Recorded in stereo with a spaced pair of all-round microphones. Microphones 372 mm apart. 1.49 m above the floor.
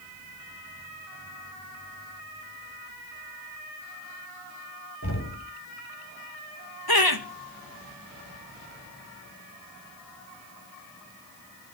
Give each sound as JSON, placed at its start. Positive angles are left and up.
{"t": 5.0, "sound": "knocking", "side_deg": 40, "distance_m": 5.5}
{"t": 6.9, "sound": "laughter", "side_deg": 70, "distance_m": 2.0}